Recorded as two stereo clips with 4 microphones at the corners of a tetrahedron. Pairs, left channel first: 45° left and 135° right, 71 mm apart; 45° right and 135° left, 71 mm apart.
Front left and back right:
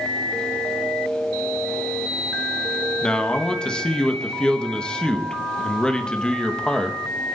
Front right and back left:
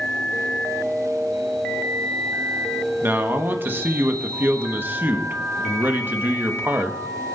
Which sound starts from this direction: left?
A man speaking, at 3.0 s.